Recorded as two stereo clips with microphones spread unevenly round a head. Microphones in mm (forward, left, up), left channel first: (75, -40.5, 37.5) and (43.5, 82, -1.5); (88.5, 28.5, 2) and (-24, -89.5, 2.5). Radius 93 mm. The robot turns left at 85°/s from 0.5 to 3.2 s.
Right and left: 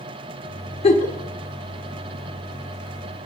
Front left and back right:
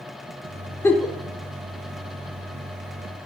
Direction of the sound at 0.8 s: 30° right.